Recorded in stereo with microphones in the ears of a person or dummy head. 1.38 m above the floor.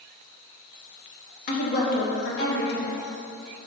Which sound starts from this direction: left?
A woman speaking, at 1.5 s.